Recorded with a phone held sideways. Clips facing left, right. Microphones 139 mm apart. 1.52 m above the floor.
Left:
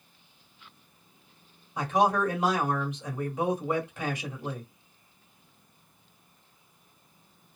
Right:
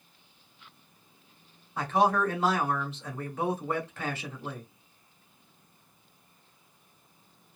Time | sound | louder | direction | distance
1.8 | a man speaking | even | 15° left (ahead or behind) | 1.1 m